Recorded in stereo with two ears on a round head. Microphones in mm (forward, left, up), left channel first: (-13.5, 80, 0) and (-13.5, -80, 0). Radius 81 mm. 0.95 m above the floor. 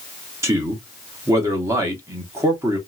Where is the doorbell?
I don't hear a doorbell.